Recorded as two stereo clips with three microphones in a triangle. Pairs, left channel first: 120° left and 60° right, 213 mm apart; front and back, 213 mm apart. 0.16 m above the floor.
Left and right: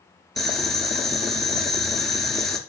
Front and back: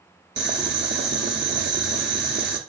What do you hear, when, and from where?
0.4 s boiling: 150° right, 0.5 m